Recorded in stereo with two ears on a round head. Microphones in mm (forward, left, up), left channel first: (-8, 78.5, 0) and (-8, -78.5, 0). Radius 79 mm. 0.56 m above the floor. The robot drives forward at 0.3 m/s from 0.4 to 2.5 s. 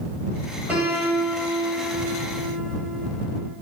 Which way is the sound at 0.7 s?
10° right (ahead or behind).